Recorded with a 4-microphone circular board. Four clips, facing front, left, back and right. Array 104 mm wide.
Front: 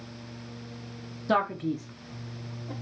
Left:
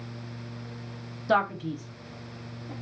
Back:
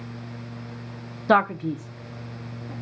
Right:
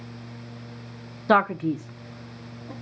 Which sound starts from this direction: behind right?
A man speaking, at 1.3 s.